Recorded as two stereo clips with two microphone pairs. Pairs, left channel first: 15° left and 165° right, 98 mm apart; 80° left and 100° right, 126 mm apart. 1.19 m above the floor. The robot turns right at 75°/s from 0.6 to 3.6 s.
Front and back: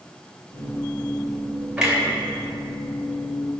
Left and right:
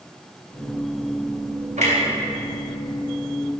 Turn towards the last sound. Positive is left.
turn(degrees=50)